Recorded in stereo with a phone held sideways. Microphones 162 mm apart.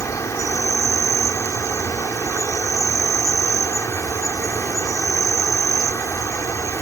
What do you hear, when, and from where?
0.0 s an insect: 15° left (ahead or behind)